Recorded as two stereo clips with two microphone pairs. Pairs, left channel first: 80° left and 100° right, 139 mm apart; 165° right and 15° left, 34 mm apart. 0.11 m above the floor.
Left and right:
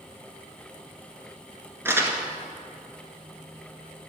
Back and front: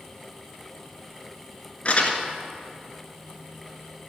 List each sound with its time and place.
1.9 s crumpling: 160° right, 1.7 m